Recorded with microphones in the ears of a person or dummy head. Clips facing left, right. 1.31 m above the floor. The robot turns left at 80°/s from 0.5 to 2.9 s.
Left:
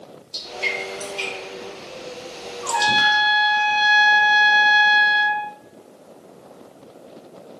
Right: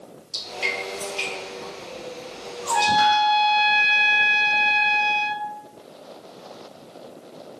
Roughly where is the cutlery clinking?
I don't hear cutlery clinking.